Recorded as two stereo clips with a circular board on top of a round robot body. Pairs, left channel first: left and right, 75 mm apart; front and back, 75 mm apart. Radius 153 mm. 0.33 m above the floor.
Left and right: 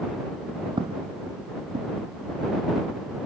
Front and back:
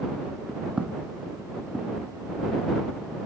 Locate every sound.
0.8 s footsteps: 105° right; by 3.0 s 75° right